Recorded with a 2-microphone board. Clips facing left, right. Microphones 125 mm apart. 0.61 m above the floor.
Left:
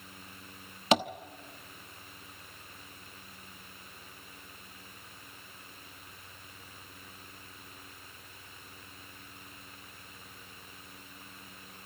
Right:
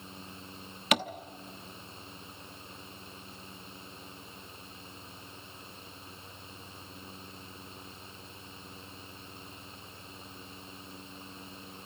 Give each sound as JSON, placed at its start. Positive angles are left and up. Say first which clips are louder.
{"t": 0.9, "sound": "tapping", "louder": "left 4 dB", "side_deg": 30, "distance_m": 1.0}